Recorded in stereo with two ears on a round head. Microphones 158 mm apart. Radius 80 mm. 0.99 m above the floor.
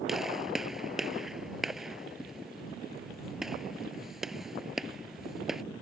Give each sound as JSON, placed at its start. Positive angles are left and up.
{"t": 0.1, "sound": "a gunshot", "side_deg": 0}